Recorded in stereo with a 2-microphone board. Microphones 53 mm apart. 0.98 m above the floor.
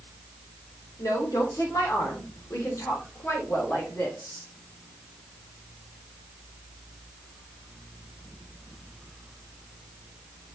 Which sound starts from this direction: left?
A woman speaking, at 1.0 s.